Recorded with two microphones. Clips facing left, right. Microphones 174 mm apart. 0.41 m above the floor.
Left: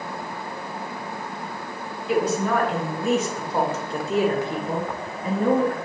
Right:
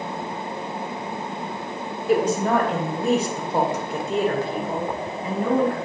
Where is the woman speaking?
50° right (ahead or behind), 2.5 m; by 5.8 s 60° left (ahead or behind), 2 m.